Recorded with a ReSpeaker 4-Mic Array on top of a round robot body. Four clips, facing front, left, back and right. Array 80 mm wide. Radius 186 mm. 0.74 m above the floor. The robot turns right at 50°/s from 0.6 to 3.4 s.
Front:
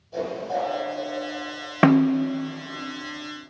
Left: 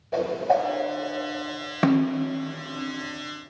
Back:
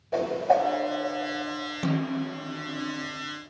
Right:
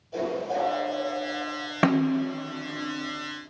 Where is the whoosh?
145° left, 2.5 m; by 0.7 s 150° left, 2.5 m.